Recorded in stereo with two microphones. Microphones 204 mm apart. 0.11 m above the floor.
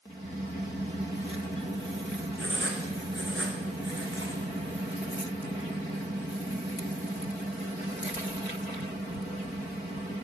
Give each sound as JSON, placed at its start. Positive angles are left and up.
{"t": 2.4, "sound": "writing", "side_deg": -70, "distance_m": 4.0}